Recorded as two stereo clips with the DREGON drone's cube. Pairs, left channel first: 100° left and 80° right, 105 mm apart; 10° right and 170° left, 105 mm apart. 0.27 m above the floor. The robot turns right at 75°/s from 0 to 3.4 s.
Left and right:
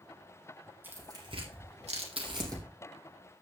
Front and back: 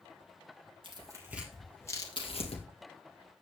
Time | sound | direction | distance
0.8 | tearing paper | 150° right | 3.5 m